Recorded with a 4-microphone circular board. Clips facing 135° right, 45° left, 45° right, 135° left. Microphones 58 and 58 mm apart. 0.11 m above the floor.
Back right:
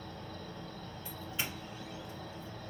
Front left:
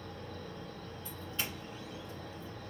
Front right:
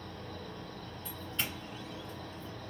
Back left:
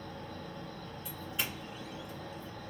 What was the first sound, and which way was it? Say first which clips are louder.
An insect: even, back left 1 dB; 100° left.